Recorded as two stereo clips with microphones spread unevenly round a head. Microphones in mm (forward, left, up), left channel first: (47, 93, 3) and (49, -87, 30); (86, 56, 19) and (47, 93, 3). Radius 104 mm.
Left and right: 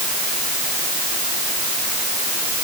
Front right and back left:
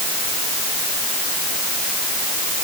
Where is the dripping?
No dripping in this recording.